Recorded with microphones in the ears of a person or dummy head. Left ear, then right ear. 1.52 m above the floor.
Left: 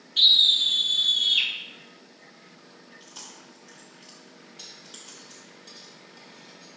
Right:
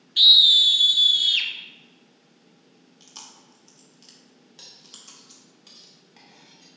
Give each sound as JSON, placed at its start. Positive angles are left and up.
{"t": 0.2, "sound": "a scream", "side_deg": -10, "distance_m": 0.6}
{"t": 3.0, "sound": "chewing", "side_deg": -15, "distance_m": 1.9}
{"t": 4.6, "sound": "cutlery clinking", "side_deg": -55, "distance_m": 1.7}